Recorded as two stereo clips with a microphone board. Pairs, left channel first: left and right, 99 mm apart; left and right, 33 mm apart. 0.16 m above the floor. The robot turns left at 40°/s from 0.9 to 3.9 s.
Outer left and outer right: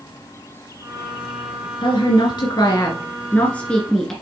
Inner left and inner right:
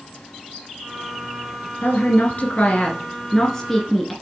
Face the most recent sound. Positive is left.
turn(degrees=5)